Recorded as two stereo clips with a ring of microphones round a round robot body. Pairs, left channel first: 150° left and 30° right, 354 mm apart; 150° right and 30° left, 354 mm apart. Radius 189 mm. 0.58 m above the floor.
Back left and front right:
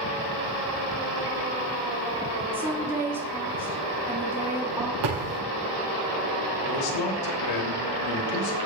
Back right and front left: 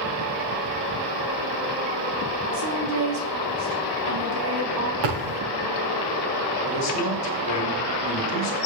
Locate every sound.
2.5 s a woman speaking: 55° left, 5 m
5.0 s a thud: straight ahead, 6.5 m
6.7 s a man speaking: 170° left, 3 m